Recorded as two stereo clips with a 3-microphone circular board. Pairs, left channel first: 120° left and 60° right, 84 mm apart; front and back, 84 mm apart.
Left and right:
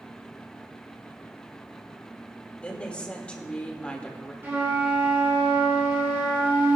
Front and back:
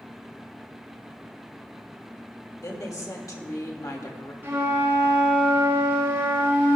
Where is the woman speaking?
45° left, 1.7 m.